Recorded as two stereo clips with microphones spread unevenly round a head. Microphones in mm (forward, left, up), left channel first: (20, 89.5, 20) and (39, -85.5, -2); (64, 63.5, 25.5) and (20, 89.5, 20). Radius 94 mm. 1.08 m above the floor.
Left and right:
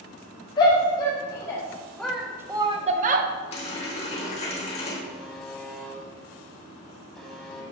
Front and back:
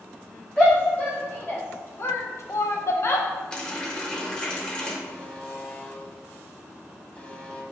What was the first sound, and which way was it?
A shout, 30° left.